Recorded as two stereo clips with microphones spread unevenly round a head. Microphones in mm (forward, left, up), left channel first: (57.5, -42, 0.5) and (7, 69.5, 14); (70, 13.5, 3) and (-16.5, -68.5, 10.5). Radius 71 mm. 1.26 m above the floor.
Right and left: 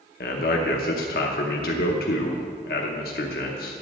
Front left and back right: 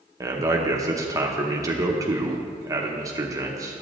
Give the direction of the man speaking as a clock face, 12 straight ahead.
2 o'clock.